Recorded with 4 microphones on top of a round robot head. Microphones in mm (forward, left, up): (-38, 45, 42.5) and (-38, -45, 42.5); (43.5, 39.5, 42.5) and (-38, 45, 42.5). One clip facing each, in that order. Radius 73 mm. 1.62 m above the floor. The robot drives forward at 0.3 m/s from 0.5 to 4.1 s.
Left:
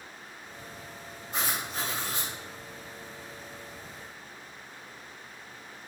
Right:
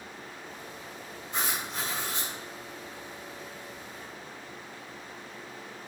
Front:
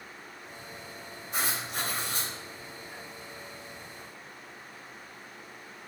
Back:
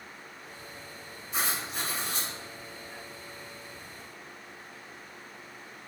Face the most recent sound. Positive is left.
turn(degrees=55)